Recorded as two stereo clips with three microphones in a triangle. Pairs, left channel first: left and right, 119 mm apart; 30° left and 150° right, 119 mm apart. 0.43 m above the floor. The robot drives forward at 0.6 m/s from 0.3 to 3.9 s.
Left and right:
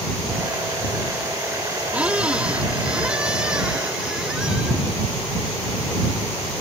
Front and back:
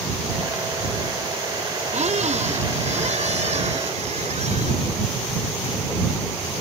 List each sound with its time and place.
1.9 s a squeak: 170° right; by 4.8 s 175° right